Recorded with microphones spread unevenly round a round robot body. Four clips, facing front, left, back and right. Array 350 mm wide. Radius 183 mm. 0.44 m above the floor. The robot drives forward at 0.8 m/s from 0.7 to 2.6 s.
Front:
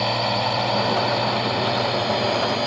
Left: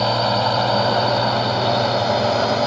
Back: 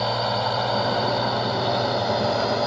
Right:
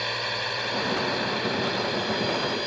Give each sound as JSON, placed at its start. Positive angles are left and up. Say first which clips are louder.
{"t": 0.0, "sound": "a drone", "louder": "left 13 dB, front 1 dB", "azimuth_deg": 70}